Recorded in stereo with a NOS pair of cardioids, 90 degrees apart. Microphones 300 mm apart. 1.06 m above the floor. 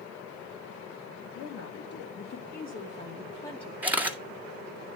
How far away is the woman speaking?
About 2.0 m.